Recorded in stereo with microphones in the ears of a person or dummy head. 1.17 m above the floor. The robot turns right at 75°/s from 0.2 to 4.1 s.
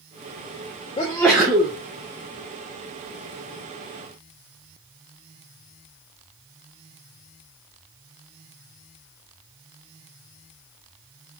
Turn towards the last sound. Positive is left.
turn(degrees=30)